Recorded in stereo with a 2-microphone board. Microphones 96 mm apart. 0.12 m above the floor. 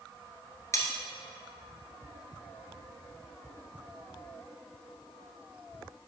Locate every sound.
0.7 s cutlery clinking: 35° left (ahead or behind), 1.3 m